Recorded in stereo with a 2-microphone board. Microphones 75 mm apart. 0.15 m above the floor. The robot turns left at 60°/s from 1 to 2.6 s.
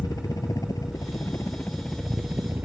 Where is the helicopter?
60° left; by 2.6 s 35° right.